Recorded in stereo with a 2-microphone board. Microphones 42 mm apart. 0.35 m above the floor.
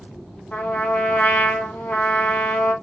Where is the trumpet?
50° left (ahead or behind), 1.2 m.